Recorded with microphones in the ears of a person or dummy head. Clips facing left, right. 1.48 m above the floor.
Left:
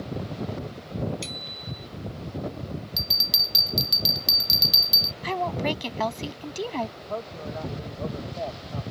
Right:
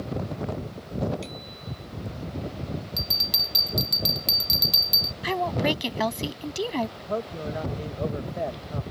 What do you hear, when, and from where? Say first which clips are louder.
1.2 s a bicycle bell: even; 70° left (ahead or behind)
3.0 s a bell: right 2 dB; 10° left (ahead or behind)
5.2 s a woman speaking: right 2 dB; 10° right (ahead or behind)
7.0 s a man speaking: right 3 dB; 35° right (ahead or behind)